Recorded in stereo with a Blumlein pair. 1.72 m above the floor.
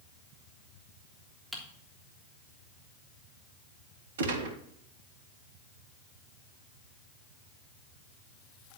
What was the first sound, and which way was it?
Typing on a keyboard, straight ahead.